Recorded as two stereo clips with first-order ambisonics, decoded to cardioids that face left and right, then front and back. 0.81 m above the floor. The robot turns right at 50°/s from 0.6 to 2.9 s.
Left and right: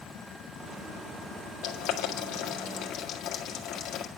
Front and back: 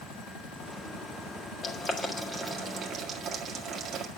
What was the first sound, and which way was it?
Boiling, 70° left.